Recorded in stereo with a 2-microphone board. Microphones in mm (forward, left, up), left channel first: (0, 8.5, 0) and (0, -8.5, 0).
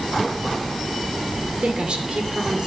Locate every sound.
1.6 s a woman speaking: 75° right (ahead or behind), 3 m; by 2.7 s 70° right (ahead or behind), 2.5 m